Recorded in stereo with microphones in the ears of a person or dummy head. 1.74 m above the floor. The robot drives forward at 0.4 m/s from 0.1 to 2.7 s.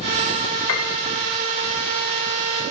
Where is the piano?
85° left, 3 m.